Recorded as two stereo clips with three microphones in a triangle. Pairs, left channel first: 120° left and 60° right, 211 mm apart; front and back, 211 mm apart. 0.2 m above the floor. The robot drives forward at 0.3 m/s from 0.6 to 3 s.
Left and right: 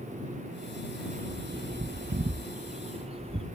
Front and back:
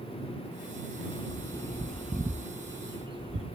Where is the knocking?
I don't hear knocking.